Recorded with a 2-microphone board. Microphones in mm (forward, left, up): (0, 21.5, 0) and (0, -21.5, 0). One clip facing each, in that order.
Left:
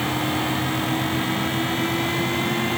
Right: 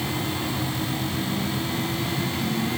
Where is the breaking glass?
No breaking glass in this recording.